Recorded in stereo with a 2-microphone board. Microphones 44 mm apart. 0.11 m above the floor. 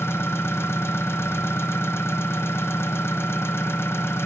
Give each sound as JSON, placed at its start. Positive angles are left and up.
{"t": 0.0, "sound": "an engine running", "side_deg": 75, "distance_m": 1.1}